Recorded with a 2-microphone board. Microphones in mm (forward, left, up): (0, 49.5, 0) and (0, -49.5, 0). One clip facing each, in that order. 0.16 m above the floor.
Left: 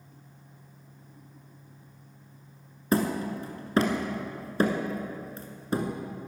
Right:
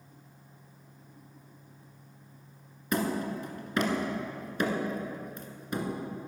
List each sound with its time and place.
2.9 s hammering: 35° left (ahead or behind), 1.5 m